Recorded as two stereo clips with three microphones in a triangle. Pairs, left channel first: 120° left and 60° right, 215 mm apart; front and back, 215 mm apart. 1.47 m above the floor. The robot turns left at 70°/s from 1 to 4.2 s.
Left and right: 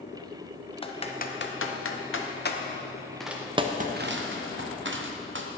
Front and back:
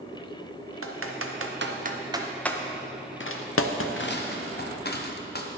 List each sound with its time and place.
0.8 s typing on a keyboard: 175° right, 0.7 m; by 5.5 s 40° right, 0.7 m